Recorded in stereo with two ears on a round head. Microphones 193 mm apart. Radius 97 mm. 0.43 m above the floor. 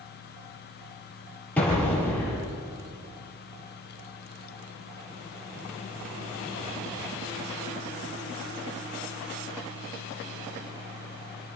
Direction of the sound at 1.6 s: 5° left (ahead or behind).